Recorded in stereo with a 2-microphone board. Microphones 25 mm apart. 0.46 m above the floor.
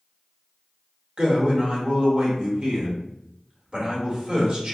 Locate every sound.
1.2 s a man speaking: 45° right (ahead or behind), 1.0 m